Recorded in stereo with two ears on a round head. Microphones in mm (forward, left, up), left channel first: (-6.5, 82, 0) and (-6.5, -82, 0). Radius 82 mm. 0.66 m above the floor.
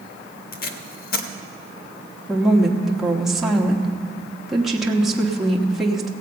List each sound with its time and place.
0.5 s tape being pulled: 55° left (ahead or behind), 0.9 m
2.3 s a woman speaking: centre (ahead or behind), 1.0 m